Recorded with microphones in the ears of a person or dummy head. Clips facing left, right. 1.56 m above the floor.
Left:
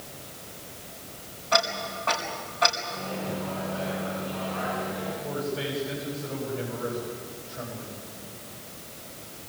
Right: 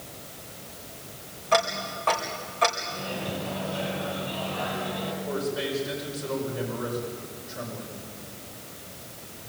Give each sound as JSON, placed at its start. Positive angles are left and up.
{"t": 1.5, "sound": "ticking", "side_deg": -35, "distance_m": 4.0}
{"t": 2.9, "sound": "a microwave", "side_deg": -55, "distance_m": 9.5}
{"t": 5.2, "sound": "a man speaking", "side_deg": -90, "distance_m": 6.5}